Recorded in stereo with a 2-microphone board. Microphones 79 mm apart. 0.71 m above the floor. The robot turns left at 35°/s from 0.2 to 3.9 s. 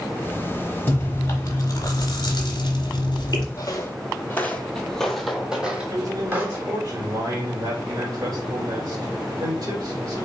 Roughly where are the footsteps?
Left.